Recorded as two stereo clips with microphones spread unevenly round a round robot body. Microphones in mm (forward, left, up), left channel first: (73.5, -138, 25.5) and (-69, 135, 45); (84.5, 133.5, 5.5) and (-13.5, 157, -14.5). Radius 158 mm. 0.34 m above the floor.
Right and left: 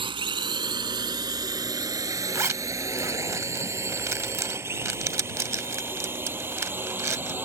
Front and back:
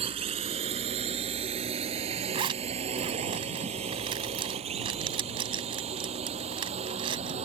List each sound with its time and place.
0.0 s a drone: 170° right; by 7.5 s 160° right
2.3 s a zipper: 160° right